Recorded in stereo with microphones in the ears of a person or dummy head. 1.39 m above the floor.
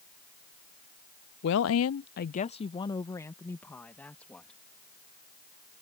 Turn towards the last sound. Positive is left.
turn(degrees=0)  # may be behind; listen again after turning